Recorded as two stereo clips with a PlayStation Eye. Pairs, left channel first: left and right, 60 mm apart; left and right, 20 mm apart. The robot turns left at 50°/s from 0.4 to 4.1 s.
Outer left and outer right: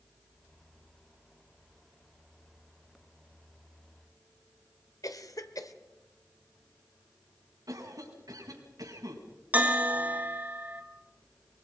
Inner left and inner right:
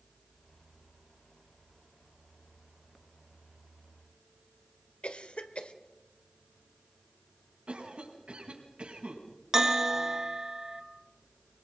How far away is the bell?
About 1.8 m.